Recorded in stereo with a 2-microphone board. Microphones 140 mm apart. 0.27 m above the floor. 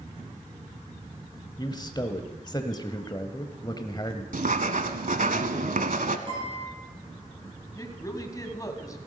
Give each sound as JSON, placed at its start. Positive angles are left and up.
{"t": 1.6, "sound": "a man speaking", "side_deg": 30, "distance_m": 1.1}
{"t": 4.3, "sound": "writing", "side_deg": -70, "distance_m": 1.0}
{"t": 6.3, "sound": "a guitar", "side_deg": -40, "distance_m": 8.0}
{"t": 7.8, "sound": "a woman speaking", "side_deg": 25, "distance_m": 2.0}